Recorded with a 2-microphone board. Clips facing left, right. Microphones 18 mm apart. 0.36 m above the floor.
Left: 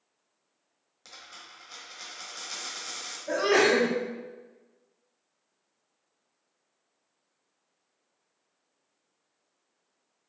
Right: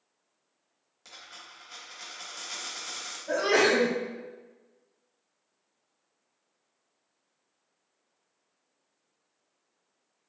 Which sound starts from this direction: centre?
A dropped coin, at 1.1 s.